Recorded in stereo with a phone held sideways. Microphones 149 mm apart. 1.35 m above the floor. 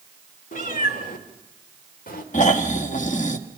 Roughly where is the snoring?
Left.